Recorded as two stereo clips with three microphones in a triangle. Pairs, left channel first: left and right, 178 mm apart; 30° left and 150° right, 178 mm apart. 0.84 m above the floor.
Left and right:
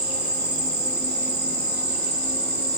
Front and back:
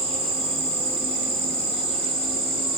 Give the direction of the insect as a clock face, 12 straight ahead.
3 o'clock.